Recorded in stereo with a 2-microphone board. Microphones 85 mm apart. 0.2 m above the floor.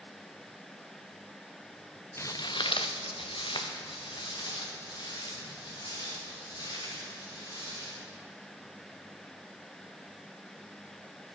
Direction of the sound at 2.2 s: 30° left (ahead or behind).